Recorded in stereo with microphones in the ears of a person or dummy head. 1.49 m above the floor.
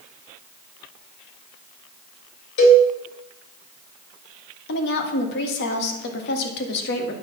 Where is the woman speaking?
70° left (ahead or behind), 1.8 m.